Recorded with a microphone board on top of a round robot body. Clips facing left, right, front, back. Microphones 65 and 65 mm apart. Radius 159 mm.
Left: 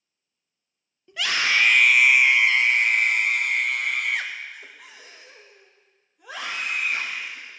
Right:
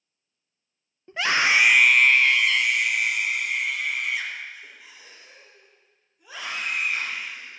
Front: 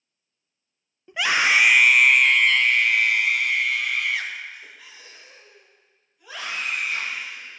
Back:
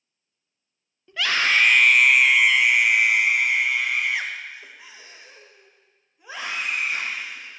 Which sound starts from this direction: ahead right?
A scream, at 1.1 s.